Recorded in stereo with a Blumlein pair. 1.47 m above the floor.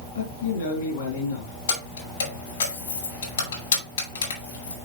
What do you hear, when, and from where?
0.1 s a man speaking: 65° left, 4.5 m
1.7 s keys jangling: 70° left, 5.5 m